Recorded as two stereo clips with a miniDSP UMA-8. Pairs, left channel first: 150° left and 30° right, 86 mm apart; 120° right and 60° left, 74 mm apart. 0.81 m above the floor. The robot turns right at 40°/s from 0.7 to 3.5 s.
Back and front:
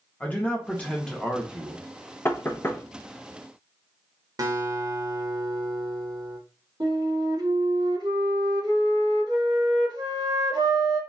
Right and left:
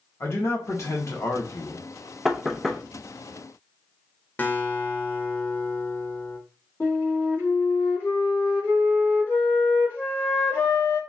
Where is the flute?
65° right, 1.9 m.